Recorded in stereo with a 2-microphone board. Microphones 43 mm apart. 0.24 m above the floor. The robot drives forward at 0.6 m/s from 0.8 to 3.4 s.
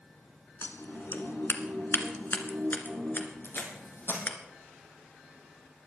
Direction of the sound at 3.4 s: 65° left (ahead or behind).